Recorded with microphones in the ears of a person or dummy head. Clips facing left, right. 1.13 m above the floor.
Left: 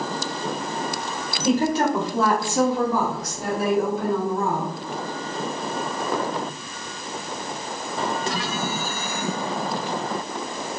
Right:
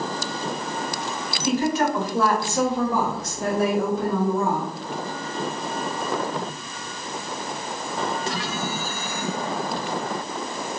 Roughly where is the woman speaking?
Left.